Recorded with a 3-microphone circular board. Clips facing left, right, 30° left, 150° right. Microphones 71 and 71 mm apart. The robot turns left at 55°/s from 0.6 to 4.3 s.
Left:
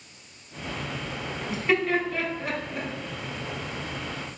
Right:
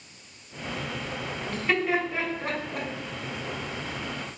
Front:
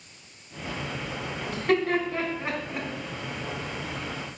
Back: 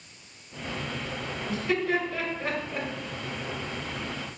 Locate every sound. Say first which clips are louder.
1.5 s laughter: left 2 dB, front 3 dB; 15° left, 3 m; by 2.9 s 60° right, 3 m